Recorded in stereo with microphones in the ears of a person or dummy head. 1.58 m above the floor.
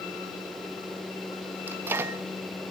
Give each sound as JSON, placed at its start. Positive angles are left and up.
{"t": 1.7, "sound": "a microwave", "side_deg": -15, "distance_m": 0.5}